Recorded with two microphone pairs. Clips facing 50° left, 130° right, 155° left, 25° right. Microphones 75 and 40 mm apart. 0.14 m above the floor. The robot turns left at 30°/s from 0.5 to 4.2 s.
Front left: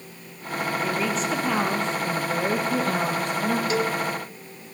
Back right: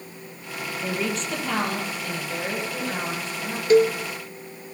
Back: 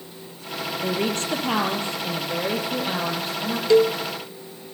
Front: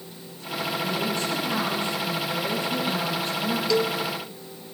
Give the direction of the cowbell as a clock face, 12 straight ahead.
5 o'clock.